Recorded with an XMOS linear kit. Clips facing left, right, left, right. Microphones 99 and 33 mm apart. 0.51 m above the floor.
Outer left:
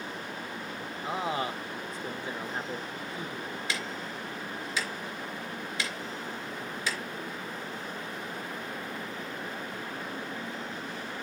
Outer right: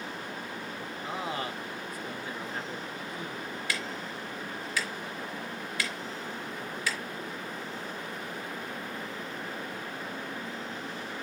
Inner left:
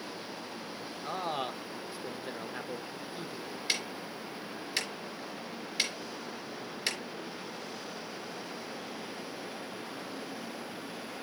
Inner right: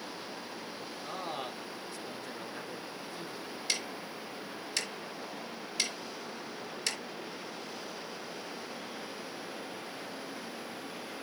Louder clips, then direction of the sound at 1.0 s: Outer left 4 dB, inner left 5 dB; 25° left (ahead or behind).